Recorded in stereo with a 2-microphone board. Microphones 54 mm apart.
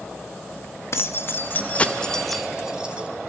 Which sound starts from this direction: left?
Keys jangling, at 0.9 s.